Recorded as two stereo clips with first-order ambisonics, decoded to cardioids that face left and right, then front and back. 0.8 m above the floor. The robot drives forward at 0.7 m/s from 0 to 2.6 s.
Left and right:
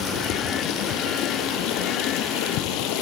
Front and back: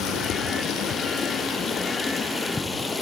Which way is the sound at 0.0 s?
45° left.